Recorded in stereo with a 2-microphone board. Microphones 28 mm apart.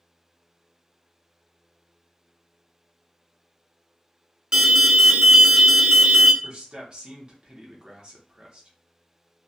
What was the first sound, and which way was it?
An alarm, 30° right (ahead or behind).